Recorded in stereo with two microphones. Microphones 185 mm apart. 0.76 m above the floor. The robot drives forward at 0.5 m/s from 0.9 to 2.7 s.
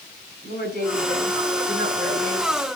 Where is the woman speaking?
65° left (ahead or behind), 6.5 m; by 2.5 s 55° left (ahead or behind), 7 m.